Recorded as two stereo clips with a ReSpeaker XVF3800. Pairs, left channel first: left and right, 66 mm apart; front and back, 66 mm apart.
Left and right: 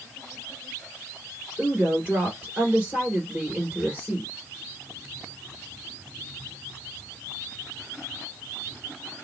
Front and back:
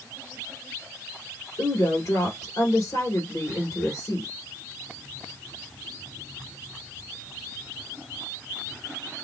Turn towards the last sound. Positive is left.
turn(degrees=-15)